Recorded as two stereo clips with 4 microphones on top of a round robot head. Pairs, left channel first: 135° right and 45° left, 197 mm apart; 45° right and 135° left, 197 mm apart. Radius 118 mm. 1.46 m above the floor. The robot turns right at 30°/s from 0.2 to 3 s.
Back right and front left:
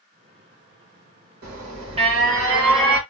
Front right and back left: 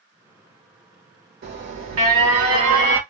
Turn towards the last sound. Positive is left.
turn(degrees=140)